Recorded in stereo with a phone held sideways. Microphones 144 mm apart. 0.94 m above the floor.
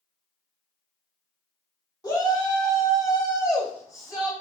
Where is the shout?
25° left (ahead or behind), 3 m; by 4.3 s 20° left (ahead or behind), 4.5 m.